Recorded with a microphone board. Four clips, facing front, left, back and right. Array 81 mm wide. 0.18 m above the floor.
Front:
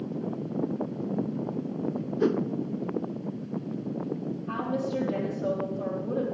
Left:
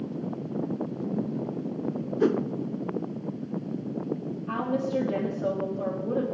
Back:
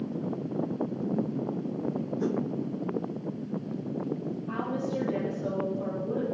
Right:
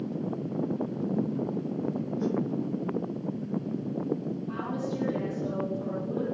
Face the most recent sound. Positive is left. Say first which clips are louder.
# left 8 dB, front 2 dB
turn(degrees=75)